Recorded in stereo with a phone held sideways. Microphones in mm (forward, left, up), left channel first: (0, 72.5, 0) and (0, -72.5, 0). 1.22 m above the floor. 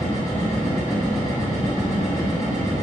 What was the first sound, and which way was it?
A machine running, 50° left (ahead or behind).